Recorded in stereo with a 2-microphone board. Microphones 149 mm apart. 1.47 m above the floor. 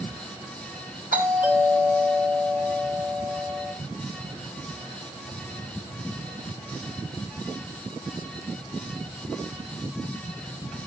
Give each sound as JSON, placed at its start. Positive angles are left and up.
{"t": 1.1, "sound": "a doorbell", "side_deg": -85, "distance_m": 4.5}